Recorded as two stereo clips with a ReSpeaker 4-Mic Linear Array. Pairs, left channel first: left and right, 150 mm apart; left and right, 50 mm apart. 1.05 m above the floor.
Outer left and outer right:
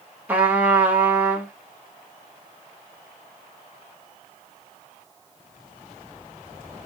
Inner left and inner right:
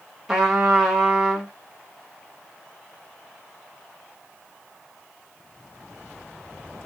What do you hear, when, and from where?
0.3 s a trumpet: 10° right (ahead or behind), 1.5 m